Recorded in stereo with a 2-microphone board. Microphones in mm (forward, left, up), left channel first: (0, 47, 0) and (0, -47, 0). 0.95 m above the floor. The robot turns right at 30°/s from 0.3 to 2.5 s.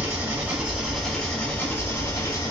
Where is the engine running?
20° right, 1.2 m; by 2.5 s 45° left, 1.2 m.